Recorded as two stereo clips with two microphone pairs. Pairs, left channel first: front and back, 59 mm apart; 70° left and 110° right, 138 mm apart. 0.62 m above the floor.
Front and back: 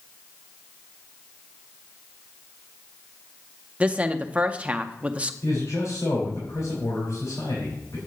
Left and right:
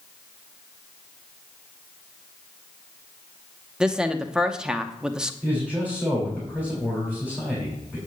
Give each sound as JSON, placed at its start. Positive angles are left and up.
{"t": 3.8, "sound": "a woman speaking", "azimuth_deg": 170, "distance_m": 0.6}
{"t": 5.4, "sound": "a man speaking", "azimuth_deg": -5, "distance_m": 3.0}